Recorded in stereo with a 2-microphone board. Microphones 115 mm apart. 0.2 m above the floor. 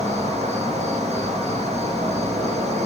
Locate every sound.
0.0 s an insect: 75° right (ahead or behind), 3 m